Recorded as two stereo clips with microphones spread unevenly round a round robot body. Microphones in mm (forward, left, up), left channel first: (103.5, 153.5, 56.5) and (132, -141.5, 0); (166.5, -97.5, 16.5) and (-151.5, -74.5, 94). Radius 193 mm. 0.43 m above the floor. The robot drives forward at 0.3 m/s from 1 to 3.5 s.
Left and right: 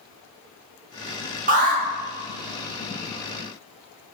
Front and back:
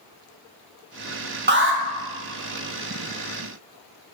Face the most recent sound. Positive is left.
turn(degrees=-160)